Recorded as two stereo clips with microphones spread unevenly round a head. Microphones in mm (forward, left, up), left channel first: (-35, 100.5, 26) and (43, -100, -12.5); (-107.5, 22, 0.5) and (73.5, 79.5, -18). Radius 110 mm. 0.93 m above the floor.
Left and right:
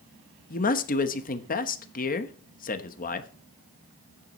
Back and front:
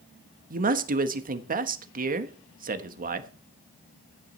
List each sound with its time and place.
0.5 s a man speaking: 55° left, 1.1 m